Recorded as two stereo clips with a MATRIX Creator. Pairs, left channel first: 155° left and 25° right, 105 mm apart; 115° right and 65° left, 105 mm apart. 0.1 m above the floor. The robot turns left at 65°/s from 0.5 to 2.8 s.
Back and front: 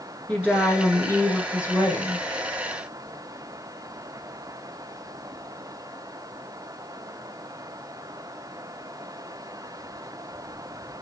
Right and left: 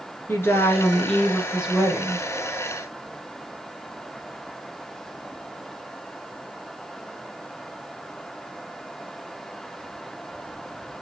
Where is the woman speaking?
145° right, 1.2 m; by 2.3 s 100° left, 1.2 m.